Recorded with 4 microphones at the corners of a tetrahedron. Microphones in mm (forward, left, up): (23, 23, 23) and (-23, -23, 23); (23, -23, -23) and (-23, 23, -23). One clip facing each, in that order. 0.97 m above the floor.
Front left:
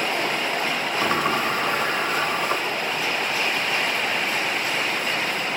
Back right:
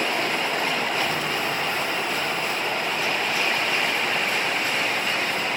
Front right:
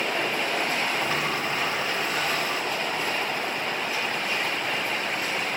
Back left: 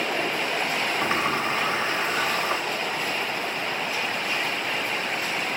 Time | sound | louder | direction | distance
1.0 | a sliding door | front left 3 dB, back left 2 dB | 75° left | 2.5 m